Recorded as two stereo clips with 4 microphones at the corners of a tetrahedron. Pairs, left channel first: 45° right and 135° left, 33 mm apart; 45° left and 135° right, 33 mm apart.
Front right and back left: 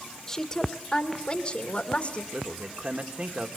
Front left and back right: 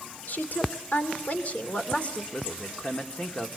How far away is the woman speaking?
About 2.5 m.